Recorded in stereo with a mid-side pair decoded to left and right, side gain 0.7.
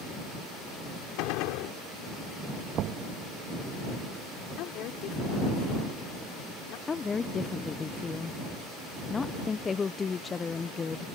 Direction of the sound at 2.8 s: 50° right.